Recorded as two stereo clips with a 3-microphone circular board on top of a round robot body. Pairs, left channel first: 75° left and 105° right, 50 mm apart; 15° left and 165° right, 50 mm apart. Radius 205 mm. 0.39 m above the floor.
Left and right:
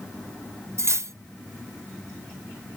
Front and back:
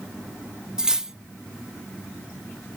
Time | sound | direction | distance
0.8 | cutlery clinking | 85° right | 1.0 m